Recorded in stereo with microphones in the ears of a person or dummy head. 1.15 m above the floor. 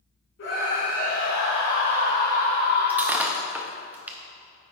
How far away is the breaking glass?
About 0.6 m.